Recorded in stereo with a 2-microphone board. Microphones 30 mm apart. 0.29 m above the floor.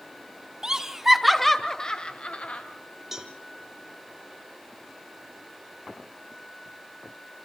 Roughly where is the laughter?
Right.